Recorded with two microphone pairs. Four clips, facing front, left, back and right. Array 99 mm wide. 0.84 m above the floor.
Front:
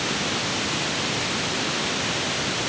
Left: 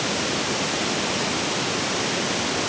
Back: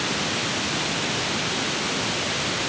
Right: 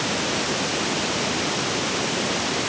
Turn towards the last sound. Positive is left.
No sound to turn to.